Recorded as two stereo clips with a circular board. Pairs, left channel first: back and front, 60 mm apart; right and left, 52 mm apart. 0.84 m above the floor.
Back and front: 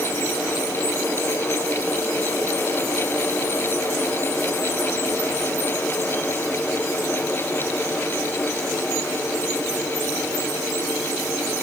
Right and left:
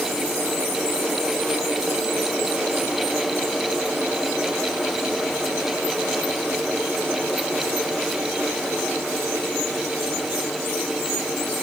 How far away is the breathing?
I don't hear breathing.